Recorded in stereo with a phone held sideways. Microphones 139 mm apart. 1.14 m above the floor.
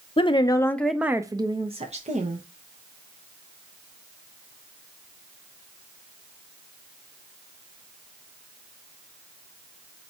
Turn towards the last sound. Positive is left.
turn(degrees=-60)  # may be behind; listen again after turning